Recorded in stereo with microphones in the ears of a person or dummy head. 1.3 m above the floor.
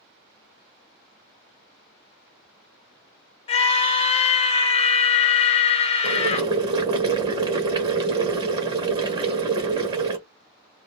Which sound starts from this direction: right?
Boiling, at 6.0 s.